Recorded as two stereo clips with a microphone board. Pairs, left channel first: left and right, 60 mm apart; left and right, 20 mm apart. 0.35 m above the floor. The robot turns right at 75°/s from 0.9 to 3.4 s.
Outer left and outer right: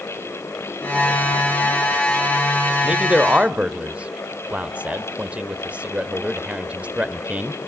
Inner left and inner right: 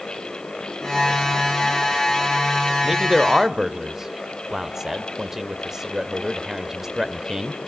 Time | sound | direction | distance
2.8 | a man speaking | 15° right (ahead or behind) | 1.0 m